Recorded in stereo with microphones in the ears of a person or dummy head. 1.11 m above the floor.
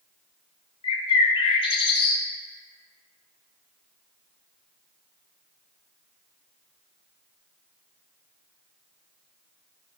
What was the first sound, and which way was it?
A bird, 30° left (ahead or behind).